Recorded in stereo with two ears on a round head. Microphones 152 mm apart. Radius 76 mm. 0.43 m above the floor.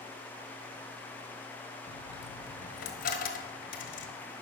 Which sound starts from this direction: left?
A dropped coin, at 1.9 s.